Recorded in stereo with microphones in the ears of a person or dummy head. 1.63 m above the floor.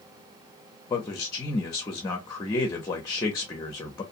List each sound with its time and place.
0.9 s a man speaking: 25° left (ahead or behind), 0.6 m